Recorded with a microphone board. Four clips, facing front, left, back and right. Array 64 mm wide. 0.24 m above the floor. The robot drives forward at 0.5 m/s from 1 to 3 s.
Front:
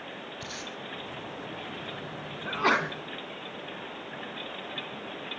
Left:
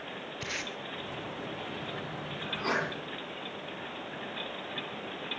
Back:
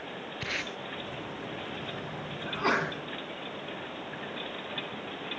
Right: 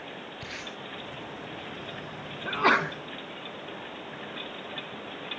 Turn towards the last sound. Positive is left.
turn(degrees=-80)